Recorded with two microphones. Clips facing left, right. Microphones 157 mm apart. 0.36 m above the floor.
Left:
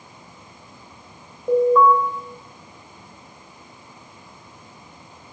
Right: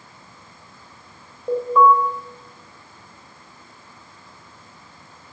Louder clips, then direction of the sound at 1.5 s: Left 2 dB; centre (ahead or behind).